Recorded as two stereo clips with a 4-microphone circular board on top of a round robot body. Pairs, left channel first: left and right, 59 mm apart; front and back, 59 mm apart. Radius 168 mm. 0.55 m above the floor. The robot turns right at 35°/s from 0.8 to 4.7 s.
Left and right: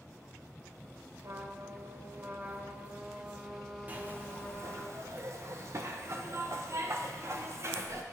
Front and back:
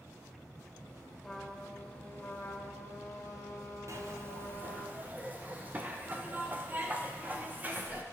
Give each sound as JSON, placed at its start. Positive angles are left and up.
{"t": 1.2, "sound": "a trumpet", "azimuth_deg": -85, "distance_m": 1.5}
{"t": 3.9, "sound": "a zipper", "azimuth_deg": -150, "distance_m": 0.8}